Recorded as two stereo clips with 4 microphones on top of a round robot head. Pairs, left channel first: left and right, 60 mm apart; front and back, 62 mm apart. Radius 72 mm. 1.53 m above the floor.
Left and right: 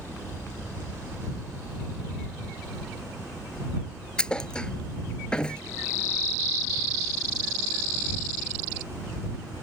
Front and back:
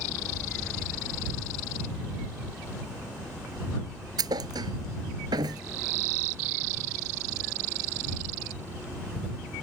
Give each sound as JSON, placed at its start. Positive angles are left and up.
{"t": 4.2, "sound": "a thud", "azimuth_deg": 165}